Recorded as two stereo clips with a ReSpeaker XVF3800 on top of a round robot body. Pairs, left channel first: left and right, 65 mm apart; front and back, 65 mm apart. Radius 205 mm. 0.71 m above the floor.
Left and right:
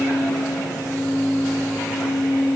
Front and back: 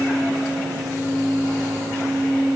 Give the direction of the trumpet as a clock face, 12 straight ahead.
No trumpet in this recording.